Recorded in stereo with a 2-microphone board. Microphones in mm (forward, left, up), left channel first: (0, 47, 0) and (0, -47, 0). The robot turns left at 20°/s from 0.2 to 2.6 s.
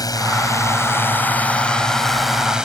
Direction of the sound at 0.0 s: 40° left.